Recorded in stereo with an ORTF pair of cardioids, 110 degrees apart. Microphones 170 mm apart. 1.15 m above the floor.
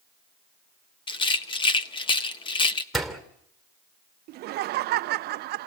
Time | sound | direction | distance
1.1 | a rattle | 30° left | 1.6 m
2.9 | a door slam | straight ahead | 3 m
4.3 | laughter | 70° right | 0.6 m